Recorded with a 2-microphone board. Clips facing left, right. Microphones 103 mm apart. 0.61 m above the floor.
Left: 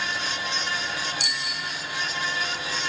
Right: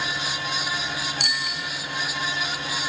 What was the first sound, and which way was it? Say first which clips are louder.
A bicycle bell: right 2 dB; 60° right (ahead or behind).